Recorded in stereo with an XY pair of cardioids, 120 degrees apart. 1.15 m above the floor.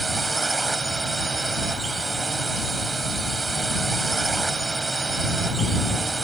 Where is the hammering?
No hammering in this recording.